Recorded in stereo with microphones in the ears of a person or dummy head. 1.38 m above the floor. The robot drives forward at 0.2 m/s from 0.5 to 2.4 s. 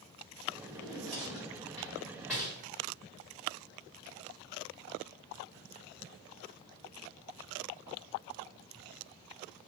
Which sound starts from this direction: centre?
A drawer, at 0.7 s.